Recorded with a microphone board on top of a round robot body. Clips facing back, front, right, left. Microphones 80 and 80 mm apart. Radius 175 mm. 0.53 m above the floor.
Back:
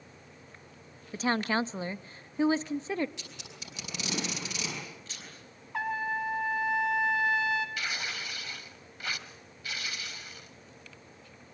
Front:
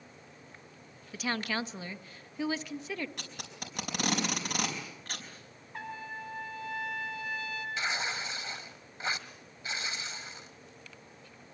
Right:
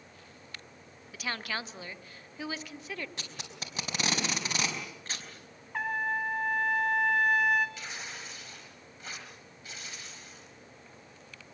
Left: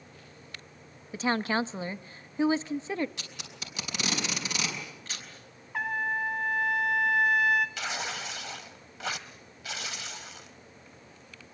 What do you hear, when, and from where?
1.1 s a woman speaking: 140° left, 0.8 m
3.2 s tape being pulled: 35° right, 5 m
5.7 s a trumpet: straight behind, 1.5 m
7.8 s tearing paper: 70° left, 0.9 m